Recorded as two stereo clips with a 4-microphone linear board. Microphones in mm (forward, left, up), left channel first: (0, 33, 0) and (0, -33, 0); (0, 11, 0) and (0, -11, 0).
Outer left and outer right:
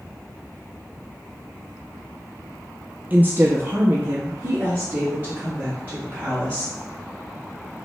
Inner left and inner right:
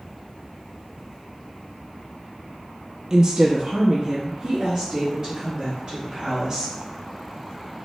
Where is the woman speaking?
30° right (ahead or behind), 0.7 m.